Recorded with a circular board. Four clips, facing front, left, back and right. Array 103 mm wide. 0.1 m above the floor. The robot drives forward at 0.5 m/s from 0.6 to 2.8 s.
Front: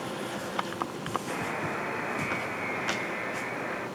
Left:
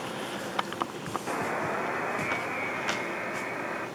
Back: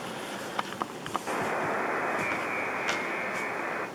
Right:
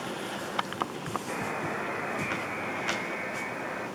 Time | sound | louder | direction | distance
1.3 | a buzzer | left 5 dB, back 3 dB | 145° left | 0.8 m